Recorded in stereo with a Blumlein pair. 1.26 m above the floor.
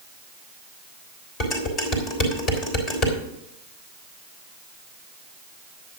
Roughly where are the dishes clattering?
Ahead left.